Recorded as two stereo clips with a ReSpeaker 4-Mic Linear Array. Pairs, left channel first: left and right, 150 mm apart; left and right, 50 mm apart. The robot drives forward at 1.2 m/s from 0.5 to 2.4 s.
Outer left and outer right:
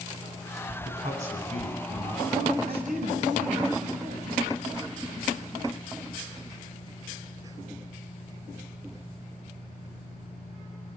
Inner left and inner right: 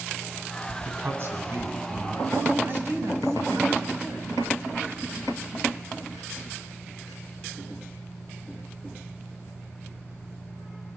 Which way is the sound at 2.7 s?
65° right (ahead or behind).